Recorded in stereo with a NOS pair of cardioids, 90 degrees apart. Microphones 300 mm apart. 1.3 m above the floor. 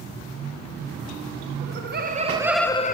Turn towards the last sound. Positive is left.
turn(degrees=30)